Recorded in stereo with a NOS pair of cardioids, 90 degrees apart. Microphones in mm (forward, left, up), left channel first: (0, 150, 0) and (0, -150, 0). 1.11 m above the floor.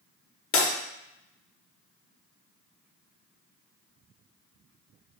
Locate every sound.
0.5 s breaking glass: 45° left, 0.7 m